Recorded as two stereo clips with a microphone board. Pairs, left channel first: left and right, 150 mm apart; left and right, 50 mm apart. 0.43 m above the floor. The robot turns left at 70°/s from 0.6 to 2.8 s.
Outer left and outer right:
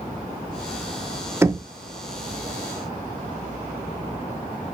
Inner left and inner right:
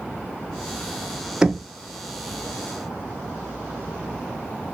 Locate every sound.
1.4 s knocking: 15° right (ahead or behind), 0.5 m